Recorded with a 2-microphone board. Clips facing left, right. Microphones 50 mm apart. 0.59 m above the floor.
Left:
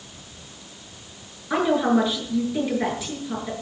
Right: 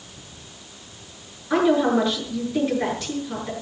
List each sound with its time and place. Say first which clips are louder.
1.5 s a woman speaking: right 2 dB; 5° left (ahead or behind), 7 m